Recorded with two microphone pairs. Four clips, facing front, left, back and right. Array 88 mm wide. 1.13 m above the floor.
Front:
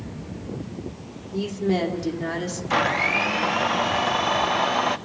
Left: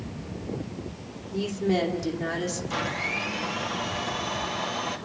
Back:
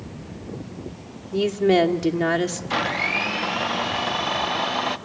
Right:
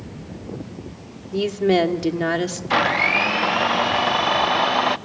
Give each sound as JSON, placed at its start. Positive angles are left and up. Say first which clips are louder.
{"t": 1.3, "sound": "a woman speaking", "louder": "right 8 dB, back 6 dB", "azimuth_deg": -135, "distance_m": 2.5}
{"t": 2.7, "sound": "a blender", "louder": "right 11 dB, front 7 dB", "azimuth_deg": -75, "distance_m": 0.9}